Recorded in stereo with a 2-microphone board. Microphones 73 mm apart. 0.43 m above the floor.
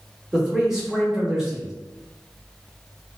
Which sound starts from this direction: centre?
A man speaking, at 0.3 s.